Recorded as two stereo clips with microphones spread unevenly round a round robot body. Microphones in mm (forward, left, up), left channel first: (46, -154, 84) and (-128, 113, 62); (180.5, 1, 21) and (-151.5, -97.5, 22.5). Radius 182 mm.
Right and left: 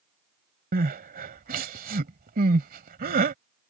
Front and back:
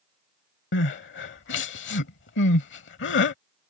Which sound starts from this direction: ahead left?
Crying, at 0.7 s.